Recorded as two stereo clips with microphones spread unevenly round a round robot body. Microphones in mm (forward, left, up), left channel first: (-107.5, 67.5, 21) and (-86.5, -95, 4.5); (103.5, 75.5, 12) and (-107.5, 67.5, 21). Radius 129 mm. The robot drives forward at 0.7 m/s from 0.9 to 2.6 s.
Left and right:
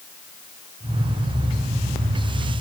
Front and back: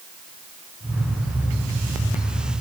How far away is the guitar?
I don't hear a guitar.